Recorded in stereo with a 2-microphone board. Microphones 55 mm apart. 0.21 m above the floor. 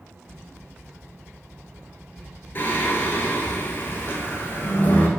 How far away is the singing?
About 0.8 m.